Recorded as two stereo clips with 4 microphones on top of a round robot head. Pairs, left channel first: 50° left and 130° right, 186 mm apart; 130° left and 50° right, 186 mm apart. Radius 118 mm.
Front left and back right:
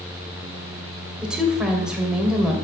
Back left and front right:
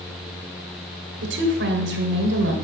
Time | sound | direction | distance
1.2 | a woman speaking | 45° right | 2.5 m